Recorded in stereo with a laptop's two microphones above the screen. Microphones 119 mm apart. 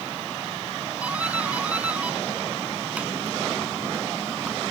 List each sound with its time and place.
1.0 s a doorbell: 10° right (ahead or behind)